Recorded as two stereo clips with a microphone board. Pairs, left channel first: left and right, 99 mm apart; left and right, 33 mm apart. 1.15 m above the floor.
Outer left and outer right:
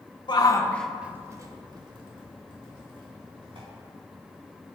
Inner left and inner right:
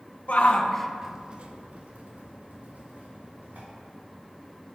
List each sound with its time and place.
0.3 s a shout: 50° left (ahead or behind), 1.1 m; by 3.6 s 65° right (ahead or behind), 4 m